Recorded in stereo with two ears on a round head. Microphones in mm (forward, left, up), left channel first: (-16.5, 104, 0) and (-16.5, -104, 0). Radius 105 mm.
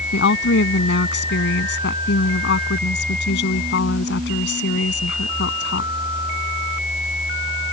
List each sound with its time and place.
0.1 s a woman speaking: 50° left (ahead or behind)